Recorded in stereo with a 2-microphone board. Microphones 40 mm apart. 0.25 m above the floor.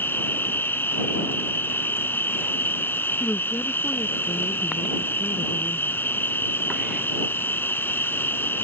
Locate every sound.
0.0 s an insect: 65° left (ahead or behind)
3.2 s a woman speaking: 60° left (ahead or behind)